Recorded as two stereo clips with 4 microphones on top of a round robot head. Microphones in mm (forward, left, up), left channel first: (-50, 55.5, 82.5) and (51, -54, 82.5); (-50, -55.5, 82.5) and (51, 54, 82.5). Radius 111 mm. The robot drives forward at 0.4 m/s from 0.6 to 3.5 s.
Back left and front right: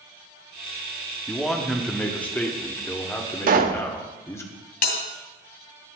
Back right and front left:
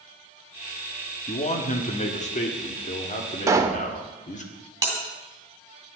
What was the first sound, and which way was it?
A man speaking, 140° right.